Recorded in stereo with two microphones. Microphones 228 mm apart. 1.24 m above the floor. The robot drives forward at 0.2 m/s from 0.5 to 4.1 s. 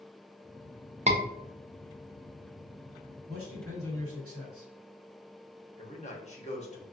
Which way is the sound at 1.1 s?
30° right (ahead or behind).